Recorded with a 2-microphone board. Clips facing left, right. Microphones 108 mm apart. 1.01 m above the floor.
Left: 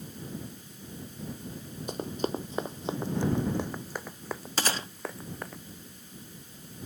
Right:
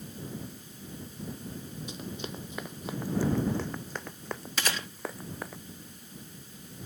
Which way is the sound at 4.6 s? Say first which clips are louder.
Left 3 dB; 35° left (ahead or behind).